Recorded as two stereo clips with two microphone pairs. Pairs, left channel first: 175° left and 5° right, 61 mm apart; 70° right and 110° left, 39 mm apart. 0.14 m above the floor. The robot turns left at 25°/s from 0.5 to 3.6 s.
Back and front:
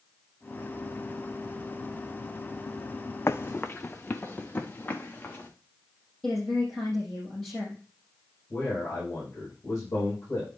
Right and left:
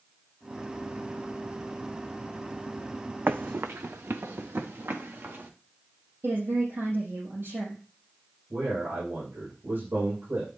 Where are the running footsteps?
130° left, 0.6 m; by 5.5 s 115° left, 2 m.